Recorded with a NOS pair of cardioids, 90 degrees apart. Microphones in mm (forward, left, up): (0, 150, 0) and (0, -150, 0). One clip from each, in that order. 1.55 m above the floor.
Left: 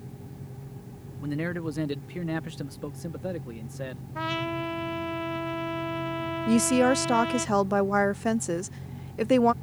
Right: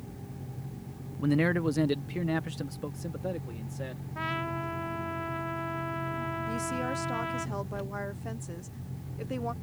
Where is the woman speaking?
65° left.